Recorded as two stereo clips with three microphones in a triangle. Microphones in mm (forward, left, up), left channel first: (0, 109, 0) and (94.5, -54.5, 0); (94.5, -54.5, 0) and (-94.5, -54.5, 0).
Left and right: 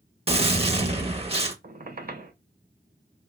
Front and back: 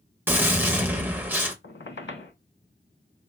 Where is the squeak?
15° right, 0.5 m.